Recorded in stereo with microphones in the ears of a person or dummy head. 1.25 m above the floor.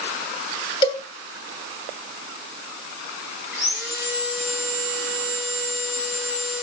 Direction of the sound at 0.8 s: 25° left (ahead or behind).